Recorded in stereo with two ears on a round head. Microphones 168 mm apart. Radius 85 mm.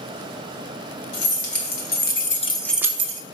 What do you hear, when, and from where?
1.1 s keys jangling: 65° left (ahead or behind), 1.9 m; by 3.2 s 45° right (ahead or behind), 0.8 m